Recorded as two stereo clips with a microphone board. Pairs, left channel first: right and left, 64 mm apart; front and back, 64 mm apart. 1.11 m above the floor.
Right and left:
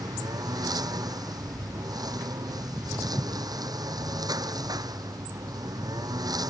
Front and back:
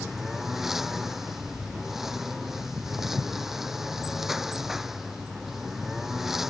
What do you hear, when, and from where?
0.0 s a lawn mower: 95° left
2.6 s footsteps: 170° right; by 6.5 s 140° left